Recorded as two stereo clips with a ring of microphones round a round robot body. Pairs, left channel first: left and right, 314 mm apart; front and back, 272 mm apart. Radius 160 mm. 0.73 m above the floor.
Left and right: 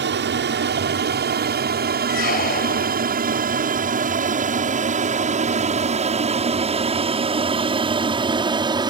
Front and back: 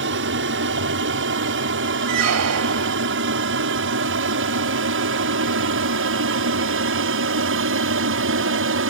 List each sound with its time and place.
0.0 s an aircraft: 140° right; by 8.9 s 160° right
2.1 s a squeak: 155° left